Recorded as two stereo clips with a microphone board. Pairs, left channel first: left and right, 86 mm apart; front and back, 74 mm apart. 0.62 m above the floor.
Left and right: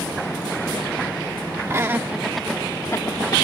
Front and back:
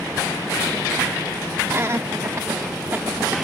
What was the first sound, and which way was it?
Laughter, 135° right.